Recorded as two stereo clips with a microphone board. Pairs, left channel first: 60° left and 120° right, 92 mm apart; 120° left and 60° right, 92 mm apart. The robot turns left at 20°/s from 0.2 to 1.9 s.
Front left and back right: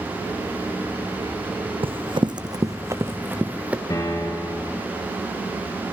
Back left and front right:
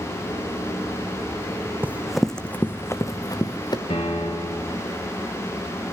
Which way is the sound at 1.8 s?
130° right.